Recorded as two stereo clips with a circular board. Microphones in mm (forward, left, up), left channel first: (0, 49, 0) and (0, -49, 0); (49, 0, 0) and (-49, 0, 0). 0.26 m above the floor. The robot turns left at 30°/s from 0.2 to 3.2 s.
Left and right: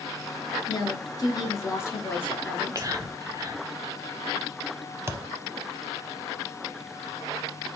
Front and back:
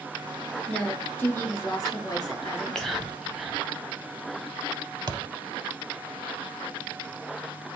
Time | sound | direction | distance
0.7 | a woman speaking | 75° left | 2 m
2.5 | whispering | 75° right | 1.1 m
5.1 | a thud | 150° right | 0.5 m